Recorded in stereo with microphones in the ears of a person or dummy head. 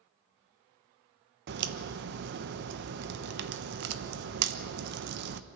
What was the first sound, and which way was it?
A crack, 65° right (ahead or behind).